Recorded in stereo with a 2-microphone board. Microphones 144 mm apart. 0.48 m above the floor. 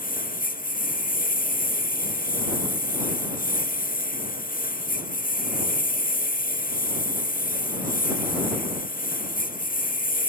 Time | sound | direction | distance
0.0 | a lawn mower | 85° left | ?